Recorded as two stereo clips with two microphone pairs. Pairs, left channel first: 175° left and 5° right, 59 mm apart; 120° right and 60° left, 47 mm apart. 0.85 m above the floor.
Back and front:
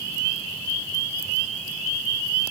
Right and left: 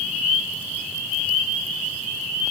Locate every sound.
Only background noise.